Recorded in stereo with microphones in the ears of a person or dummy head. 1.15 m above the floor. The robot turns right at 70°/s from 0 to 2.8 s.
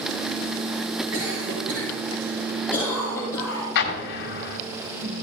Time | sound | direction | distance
1.1 | a cough | 80° right | 4.5 m
3.8 | an explosion | 65° left (ahead or behind) | 1.8 m